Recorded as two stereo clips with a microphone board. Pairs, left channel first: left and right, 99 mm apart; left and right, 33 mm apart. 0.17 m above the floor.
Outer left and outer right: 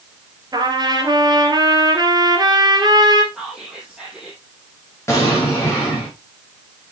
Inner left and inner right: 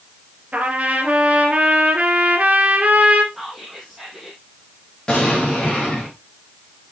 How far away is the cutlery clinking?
I don't hear cutlery clinking.